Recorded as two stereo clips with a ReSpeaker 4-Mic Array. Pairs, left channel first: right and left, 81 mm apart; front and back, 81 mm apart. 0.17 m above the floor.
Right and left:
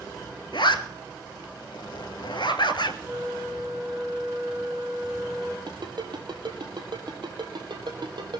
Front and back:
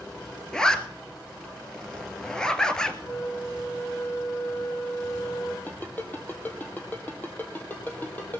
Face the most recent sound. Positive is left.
turn(degrees=65)